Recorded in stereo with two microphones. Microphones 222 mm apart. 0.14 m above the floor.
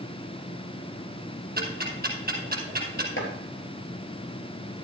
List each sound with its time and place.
1.6 s ticking: 45° right (ahead or behind), 2.5 m
3.2 s chopping: 60° left (ahead or behind), 3 m